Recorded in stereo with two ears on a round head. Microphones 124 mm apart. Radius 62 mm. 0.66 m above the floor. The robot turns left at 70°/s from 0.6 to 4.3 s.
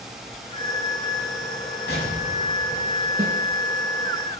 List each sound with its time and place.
1.9 s an explosion: 90° left, 6 m; by 3.3 s 10° right, 6 m
3.2 s a snare drum: 20° right (ahead or behind), 6.5 m; by 3.4 s 35° right (ahead or behind), 6.5 m